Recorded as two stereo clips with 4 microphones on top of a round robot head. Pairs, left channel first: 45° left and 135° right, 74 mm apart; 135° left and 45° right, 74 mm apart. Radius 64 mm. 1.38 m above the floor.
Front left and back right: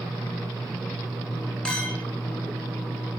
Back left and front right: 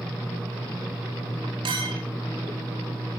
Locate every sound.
1.6 s a clink: 35° right, 5 m